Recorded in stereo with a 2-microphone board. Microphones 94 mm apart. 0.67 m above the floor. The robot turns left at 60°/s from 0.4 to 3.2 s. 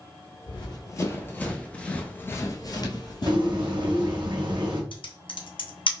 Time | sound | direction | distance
0.5 | running footsteps | 60° left (ahead or behind) | 1.2 m
3.3 | a bird | 65° right (ahead or behind) | 1.3 m
4.9 | typing on a keyboard | 70° left (ahead or behind) | 0.6 m